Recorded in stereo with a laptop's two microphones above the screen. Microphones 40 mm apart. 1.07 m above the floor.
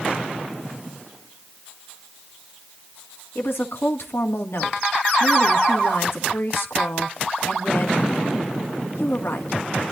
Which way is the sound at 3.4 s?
80° left.